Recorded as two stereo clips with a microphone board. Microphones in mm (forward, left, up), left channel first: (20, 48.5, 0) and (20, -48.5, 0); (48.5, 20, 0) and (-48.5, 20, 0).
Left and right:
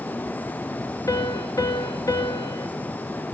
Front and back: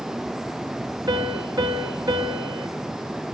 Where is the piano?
135° left, 1.5 m.